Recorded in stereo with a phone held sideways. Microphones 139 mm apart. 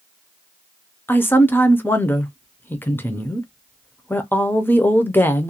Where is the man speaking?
15° left (ahead or behind), 0.5 m.